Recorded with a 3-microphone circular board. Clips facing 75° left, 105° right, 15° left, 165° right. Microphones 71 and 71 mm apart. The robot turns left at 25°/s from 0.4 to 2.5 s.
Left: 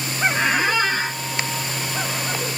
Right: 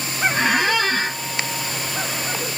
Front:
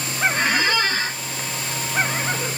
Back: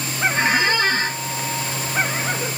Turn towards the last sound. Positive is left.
turn(degrees=-155)